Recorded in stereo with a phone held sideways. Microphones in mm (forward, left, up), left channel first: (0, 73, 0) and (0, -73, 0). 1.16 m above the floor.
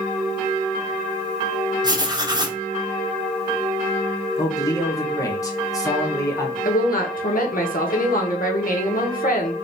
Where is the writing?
25° right (ahead or behind), 0.9 m.